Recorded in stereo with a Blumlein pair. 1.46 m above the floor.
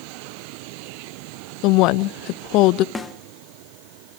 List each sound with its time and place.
1.6 s a woman speaking: 40° left, 0.5 m
3.0 s a snare drum: 15° left, 1.5 m